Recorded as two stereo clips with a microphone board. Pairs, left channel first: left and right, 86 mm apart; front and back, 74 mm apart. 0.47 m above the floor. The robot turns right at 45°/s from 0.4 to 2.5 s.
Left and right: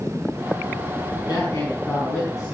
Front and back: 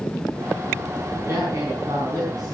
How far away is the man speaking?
About 4.5 m.